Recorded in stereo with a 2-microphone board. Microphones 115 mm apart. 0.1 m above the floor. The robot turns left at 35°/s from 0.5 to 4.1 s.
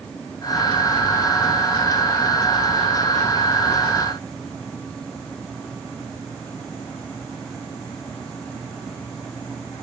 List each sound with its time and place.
Only background noise.